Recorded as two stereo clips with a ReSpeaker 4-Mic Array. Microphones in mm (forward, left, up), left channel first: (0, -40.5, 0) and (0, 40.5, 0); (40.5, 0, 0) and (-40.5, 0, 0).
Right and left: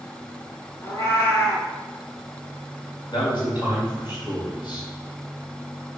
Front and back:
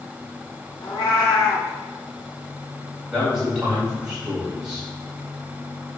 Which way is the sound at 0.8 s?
40° right.